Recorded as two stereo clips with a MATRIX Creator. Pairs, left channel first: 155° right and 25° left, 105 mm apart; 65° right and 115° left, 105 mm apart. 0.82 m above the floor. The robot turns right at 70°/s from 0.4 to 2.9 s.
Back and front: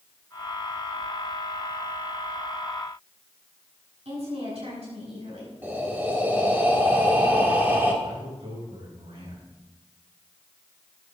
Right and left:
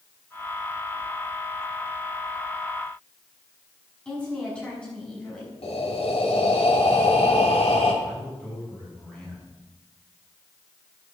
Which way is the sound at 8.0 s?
15° left.